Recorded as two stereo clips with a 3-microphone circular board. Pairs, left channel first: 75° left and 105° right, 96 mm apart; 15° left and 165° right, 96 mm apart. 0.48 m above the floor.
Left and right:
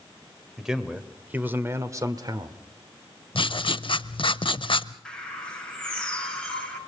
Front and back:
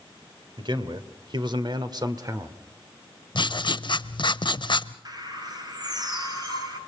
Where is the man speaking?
170° left, 1.7 m; by 2.6 s 120° right, 1.3 m.